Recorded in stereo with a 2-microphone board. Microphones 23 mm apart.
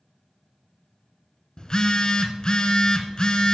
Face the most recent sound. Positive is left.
turn(degrees=40)  # may be behind; listen again after turning